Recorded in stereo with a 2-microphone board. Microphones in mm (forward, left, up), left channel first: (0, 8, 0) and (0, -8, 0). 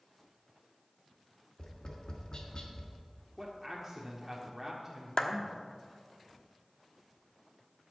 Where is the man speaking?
15° right (ahead or behind), 1.5 m.